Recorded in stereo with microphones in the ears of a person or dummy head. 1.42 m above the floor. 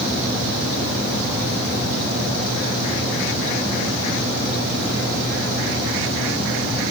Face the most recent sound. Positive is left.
No sound to turn to.